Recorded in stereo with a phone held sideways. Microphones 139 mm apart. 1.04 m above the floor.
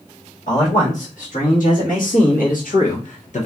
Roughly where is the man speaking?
Left.